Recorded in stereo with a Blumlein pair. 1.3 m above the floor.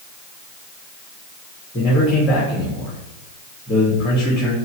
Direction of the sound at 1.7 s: 25° left.